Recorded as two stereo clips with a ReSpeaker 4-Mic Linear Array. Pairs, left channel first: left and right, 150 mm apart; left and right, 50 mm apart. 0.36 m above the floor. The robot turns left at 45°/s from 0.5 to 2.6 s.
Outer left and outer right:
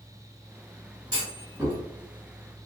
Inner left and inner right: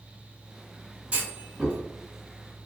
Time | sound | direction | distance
1.1 | a clunk | 30° right (ahead or behind) | 1.5 m